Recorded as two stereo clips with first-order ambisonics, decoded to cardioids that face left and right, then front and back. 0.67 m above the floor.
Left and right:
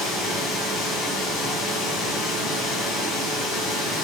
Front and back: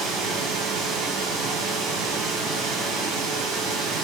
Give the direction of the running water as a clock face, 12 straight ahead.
8 o'clock.